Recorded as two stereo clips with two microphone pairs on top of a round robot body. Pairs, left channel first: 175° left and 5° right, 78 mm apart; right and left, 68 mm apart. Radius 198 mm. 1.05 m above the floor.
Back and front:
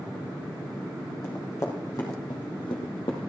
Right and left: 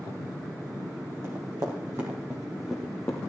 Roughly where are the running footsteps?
Behind left.